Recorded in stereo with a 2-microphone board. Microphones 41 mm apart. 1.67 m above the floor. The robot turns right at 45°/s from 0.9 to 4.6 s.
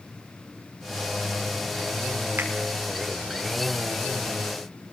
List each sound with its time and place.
2.4 s a finger snap: 55° right (ahead or behind), 5 m; by 2.5 s 50° right (ahead or behind), 5 m